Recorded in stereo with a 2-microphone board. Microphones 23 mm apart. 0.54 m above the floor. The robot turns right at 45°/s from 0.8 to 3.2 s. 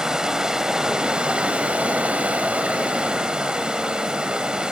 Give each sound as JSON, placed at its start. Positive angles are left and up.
{"t": 0.0, "sound": "running water", "azimuth_deg": -150, "distance_m": 0.9}